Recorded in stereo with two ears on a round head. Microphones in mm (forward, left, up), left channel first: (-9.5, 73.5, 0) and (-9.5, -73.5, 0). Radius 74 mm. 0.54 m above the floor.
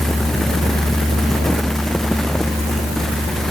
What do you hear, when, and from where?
Only background noise.